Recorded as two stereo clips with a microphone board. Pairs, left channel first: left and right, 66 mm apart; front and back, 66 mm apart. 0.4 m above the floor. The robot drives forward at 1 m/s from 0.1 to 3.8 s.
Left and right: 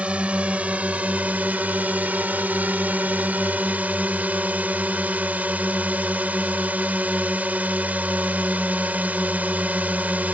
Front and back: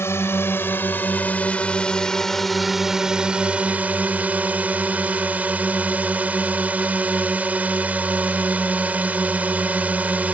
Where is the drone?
25° right; by 10.3 s 135° right.